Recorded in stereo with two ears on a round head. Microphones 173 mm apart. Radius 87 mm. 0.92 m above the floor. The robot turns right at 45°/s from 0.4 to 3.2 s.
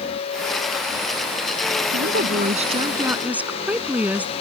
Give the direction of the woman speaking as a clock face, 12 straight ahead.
2 o'clock.